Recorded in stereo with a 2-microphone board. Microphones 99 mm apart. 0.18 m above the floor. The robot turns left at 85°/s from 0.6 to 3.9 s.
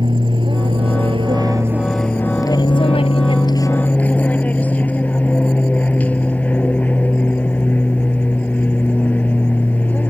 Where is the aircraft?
65° right; by 10.1 s 15° left.